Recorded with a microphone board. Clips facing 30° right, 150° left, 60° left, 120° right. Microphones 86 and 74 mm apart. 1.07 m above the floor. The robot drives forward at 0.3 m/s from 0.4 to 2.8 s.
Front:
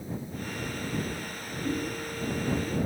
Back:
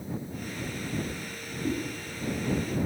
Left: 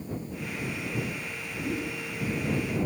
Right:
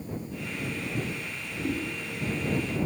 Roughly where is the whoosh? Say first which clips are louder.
Back 1 dB, right 2 dB; behind right.